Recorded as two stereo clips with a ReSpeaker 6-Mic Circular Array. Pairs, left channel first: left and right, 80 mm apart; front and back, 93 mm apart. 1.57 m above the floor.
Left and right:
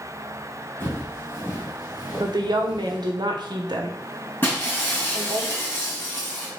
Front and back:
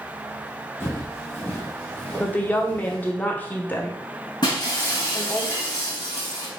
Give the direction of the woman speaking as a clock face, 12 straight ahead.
2 o'clock.